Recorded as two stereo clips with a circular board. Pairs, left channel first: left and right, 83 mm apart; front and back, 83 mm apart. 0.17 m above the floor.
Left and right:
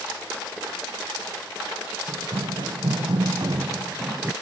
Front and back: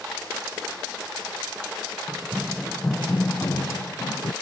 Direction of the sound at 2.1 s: 110° right.